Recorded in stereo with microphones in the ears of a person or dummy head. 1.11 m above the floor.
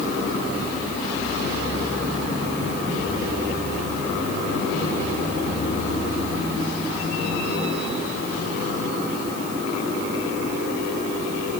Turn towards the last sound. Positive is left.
No sound to turn to.